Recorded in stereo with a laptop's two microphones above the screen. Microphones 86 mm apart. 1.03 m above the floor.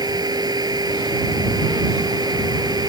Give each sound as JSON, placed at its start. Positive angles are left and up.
{"t": 0.0, "sound": "a machine running", "side_deg": -50}